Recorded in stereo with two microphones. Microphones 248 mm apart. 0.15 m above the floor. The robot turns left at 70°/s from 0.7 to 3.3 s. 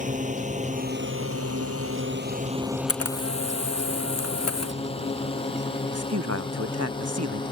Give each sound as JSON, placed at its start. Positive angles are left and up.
{"t": 0.0, "sound": "a drone", "side_deg": -30}
{"t": 2.9, "sound": "a camera shutter", "side_deg": 65}
{"t": 5.8, "sound": "a man speaking", "side_deg": -75}